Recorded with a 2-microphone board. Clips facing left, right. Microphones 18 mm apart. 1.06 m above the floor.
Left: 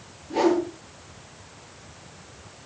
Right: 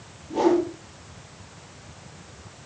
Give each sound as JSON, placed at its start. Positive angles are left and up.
{"t": 0.3, "sound": "a whoosh", "side_deg": 45, "distance_m": 9.0}